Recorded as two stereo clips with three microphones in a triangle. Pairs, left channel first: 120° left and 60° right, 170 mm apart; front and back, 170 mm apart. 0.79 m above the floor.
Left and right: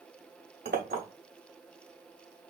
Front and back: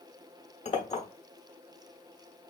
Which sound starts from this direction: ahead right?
A clink, at 0.7 s.